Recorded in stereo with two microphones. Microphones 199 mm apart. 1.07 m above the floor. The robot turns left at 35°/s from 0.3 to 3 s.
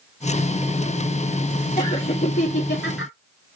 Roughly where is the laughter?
Behind left.